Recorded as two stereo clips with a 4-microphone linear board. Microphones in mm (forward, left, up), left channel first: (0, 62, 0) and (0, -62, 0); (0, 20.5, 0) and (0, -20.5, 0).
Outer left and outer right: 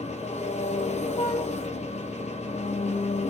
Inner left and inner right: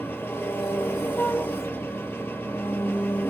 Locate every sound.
0.0 s an engine running: 65° left (ahead or behind), 2.0 m
1.2 s a flute: 65° left (ahead or behind), 3 m